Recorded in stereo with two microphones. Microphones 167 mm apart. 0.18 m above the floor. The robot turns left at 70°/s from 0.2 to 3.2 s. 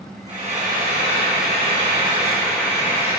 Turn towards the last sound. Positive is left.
turn(degrees=135)